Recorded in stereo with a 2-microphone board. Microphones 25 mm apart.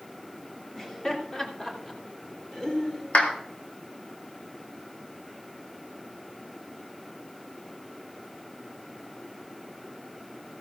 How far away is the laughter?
About 3 m.